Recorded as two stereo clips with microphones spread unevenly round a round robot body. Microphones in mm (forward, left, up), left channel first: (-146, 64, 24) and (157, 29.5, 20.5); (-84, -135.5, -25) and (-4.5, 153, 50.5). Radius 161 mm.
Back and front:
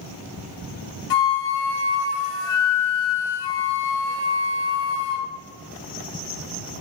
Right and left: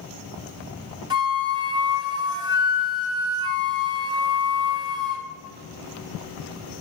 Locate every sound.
1.1 s a flute: 155° left, 1.0 m